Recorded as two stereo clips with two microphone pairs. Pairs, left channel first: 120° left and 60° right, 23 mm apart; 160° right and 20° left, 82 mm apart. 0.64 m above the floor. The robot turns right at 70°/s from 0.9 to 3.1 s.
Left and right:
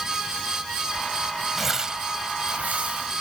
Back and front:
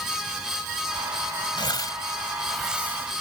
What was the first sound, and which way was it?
Tearing paper, 140° right.